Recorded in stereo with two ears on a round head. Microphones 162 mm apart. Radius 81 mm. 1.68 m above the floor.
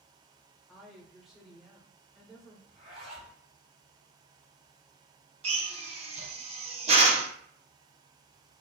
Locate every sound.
0.7 s a woman speaking: centre (ahead or behind), 0.9 m
2.7 s a zipper: 40° right (ahead or behind), 2 m
5.4 s a drill: 35° right (ahead or behind), 0.7 m